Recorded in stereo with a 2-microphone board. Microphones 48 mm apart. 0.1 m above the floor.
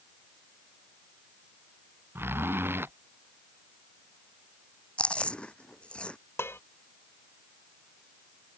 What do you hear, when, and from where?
2.1 s a zipper: 50° right (ahead or behind)
5.0 s chewing: 25° left (ahead or behind)
6.4 s dishes clattering: 55° left (ahead or behind)